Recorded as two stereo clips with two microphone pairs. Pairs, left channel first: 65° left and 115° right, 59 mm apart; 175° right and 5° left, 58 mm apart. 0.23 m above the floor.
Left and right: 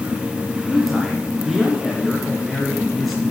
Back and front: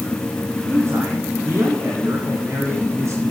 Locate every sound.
0.7 s a man speaking: 20° right, 3 m